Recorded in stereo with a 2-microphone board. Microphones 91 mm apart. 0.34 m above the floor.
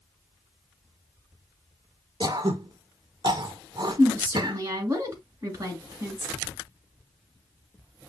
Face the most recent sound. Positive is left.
turn(degrees=-35)  # may be behind; listen again after turning